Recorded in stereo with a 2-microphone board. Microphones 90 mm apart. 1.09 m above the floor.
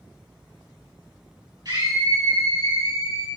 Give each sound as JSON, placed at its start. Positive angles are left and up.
{"t": 1.6, "sound": "a scream", "side_deg": -45, "distance_m": 2.5}